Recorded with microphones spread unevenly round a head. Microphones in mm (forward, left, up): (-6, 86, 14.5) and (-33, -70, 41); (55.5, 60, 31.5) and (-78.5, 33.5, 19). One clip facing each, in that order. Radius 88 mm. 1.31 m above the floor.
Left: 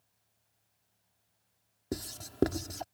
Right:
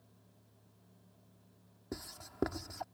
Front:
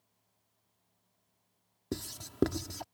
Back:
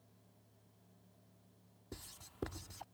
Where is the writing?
20° left.